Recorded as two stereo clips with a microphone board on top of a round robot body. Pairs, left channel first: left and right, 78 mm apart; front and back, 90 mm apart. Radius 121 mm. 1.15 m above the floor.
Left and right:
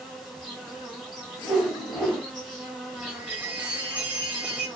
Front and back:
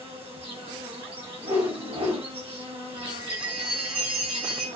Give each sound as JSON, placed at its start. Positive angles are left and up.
{"t": 0.0, "sound": "an insect", "azimuth_deg": 180, "distance_m": 2.5}
{"t": 1.4, "sound": "a whoosh", "azimuth_deg": 180, "distance_m": 1.9}
{"t": 3.0, "sound": "a chime", "azimuth_deg": -165, "distance_m": 1.3}